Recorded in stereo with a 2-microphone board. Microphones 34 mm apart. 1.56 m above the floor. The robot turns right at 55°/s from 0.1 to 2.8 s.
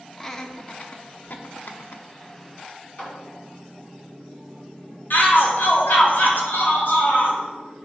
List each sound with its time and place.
0.2 s laughter: 5° left (ahead or behind), 0.8 m; by 2.0 s 65° left (ahead or behind), 0.8 m
3.0 s a clap: 40° left (ahead or behind), 1.9 m
5.1 s a shout: 75° left (ahead or behind), 1.4 m